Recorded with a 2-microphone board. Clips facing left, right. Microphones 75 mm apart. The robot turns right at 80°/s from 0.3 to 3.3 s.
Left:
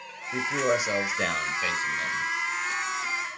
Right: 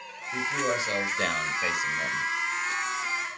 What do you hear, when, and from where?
0.3 s a man speaking: 25° left (ahead or behind), 1.0 m; by 2.2 s 25° right (ahead or behind), 1.0 m